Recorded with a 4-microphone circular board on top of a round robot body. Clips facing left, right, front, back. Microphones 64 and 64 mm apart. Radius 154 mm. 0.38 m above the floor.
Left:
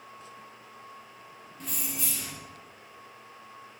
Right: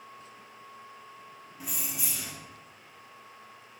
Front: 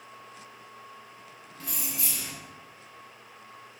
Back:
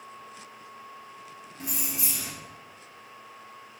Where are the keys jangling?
155° right, 0.8 m.